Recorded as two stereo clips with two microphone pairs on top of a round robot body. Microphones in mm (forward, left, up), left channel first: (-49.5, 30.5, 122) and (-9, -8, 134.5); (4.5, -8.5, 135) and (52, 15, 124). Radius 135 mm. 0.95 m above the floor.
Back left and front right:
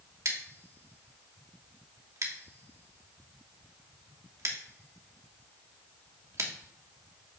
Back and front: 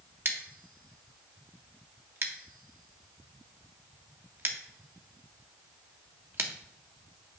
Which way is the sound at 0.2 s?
10° right.